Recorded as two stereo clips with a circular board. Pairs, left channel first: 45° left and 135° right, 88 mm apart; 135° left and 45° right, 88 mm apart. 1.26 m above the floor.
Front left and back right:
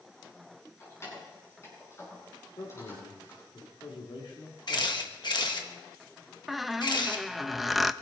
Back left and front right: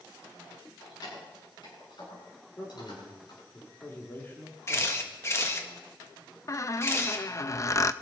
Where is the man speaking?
70° left, 3.5 m.